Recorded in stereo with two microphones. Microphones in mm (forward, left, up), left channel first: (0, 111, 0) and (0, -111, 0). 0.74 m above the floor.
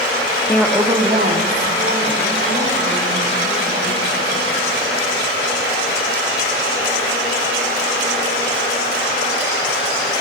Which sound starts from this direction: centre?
A woman speaking, at 0.5 s.